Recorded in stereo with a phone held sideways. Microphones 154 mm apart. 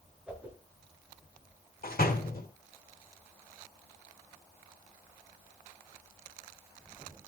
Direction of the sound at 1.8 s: 75° left (ahead or behind).